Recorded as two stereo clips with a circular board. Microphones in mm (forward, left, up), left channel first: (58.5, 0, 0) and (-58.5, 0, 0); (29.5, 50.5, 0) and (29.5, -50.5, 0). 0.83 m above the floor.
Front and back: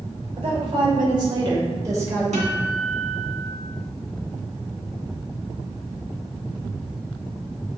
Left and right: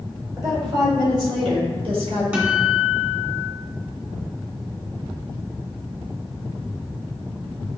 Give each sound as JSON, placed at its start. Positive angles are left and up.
{"t": 0.4, "sound": "a woman speaking", "azimuth_deg": -140, "distance_m": 2.5}
{"t": 2.3, "sound": "a guitar", "azimuth_deg": -165, "distance_m": 1.9}